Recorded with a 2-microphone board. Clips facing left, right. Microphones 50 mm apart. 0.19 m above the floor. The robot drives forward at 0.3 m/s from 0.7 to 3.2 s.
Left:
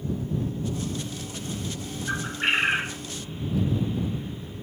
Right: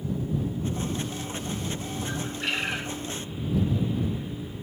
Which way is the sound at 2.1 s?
35° left (ahead or behind).